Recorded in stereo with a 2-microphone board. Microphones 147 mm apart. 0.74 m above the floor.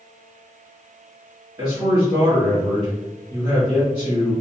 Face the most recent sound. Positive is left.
turn(degrees=-30)  # may be behind; listen again after turning